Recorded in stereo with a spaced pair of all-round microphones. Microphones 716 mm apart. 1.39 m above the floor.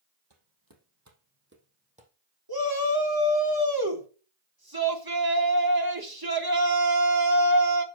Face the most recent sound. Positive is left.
turn(degrees=-30)  # may be behind; listen again after turning